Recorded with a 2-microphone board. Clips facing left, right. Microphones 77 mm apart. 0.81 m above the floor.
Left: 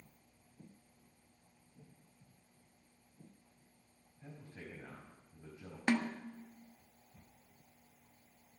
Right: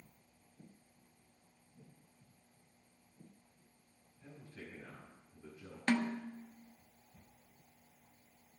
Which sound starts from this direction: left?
A man speaking, at 4.2 s.